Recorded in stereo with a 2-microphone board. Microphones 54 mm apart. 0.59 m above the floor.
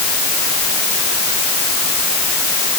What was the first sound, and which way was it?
Only background noise.